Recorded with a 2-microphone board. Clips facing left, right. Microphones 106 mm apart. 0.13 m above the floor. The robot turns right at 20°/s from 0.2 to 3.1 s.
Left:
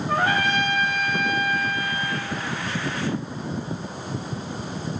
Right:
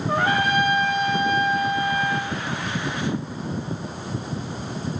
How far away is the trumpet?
About 9 m.